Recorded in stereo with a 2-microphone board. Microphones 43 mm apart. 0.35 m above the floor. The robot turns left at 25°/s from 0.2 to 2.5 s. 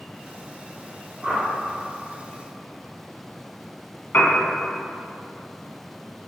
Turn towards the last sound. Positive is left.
turn(degrees=75)  # may be behind; listen again after turning